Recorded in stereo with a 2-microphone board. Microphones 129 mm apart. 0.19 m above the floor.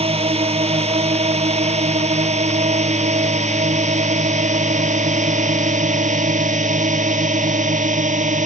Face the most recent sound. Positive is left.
turn(degrees=-75)  # may be behind; listen again after turning